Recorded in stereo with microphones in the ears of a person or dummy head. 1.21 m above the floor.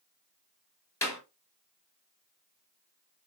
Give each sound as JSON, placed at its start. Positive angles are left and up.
{"t": 1.0, "sound": "a clap", "side_deg": 15, "distance_m": 4.0}